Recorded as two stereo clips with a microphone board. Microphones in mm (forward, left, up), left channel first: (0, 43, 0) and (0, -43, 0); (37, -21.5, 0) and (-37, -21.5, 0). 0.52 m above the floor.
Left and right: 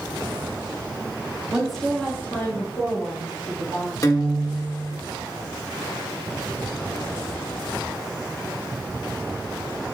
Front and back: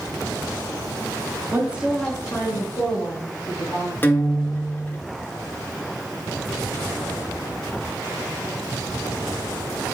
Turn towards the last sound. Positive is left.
turn(degrees=55)